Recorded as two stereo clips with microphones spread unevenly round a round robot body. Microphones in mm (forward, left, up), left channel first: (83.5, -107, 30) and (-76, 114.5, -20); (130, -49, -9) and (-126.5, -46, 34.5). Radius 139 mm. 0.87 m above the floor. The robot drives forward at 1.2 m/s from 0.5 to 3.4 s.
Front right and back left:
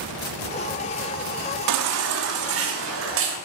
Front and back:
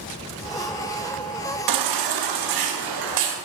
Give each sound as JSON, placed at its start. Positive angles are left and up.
{"t": 1.7, "sound": "a baby crying", "azimuth_deg": 155, "distance_m": 1.1}